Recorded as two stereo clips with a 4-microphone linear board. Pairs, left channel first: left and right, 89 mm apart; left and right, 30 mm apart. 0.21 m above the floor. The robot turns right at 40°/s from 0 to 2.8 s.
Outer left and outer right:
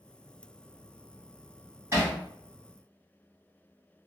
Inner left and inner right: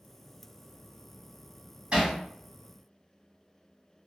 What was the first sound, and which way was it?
Hammering, 30° right (ahead or behind).